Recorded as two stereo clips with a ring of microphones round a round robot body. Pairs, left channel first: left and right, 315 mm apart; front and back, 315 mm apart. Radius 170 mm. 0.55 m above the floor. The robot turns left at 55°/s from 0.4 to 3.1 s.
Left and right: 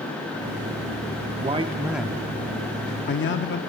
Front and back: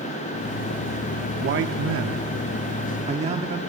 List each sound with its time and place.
1.4 s a man speaking: 145° right, 0.8 m; by 3.6 s 120° left, 0.8 m